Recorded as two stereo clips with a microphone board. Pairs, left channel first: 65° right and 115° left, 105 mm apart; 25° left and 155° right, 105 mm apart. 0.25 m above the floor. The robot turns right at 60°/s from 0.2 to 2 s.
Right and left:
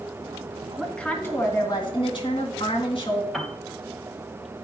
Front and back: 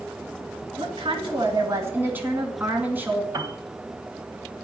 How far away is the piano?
About 1.4 m.